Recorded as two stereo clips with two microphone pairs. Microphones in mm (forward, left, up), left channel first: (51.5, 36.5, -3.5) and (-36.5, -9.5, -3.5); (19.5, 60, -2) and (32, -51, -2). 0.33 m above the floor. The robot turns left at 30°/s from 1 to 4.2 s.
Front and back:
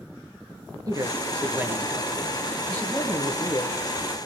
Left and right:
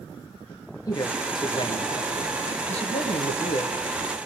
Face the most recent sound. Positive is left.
turn(degrees=60)